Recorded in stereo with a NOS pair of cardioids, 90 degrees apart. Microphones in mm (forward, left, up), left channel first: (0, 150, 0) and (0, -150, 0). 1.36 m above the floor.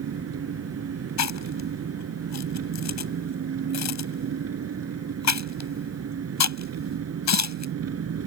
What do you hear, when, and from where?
0.0 s an engine running: 55° right
1.2 s chewing: 65° left